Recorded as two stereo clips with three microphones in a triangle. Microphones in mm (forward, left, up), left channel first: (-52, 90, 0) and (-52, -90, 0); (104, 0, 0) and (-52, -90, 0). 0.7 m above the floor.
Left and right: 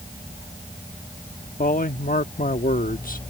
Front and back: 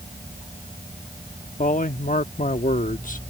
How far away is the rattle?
No rattle in this recording.